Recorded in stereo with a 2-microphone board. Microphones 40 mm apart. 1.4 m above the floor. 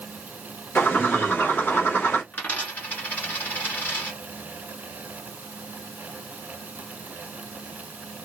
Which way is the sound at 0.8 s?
65° left (ahead or behind).